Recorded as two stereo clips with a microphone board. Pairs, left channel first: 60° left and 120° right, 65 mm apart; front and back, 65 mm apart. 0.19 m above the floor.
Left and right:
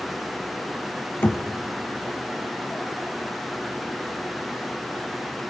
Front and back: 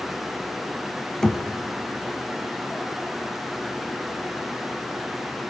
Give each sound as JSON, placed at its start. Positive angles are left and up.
{"t": 1.2, "sound": "knocking", "azimuth_deg": 75, "distance_m": 0.8}